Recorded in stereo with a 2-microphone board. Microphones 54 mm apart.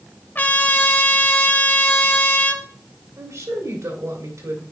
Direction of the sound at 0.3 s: 35° left (ahead or behind).